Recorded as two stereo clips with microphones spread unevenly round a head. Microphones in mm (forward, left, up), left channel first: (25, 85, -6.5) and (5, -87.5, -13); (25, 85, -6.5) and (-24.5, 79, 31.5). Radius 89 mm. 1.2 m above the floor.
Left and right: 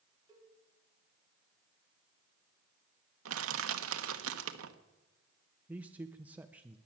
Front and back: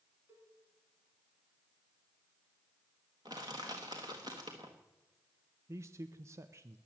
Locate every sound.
0.3 s a cowbell: 165° right, 3 m
3.2 s crushing: 110° right, 1.0 m
5.7 s a man speaking: straight behind, 0.6 m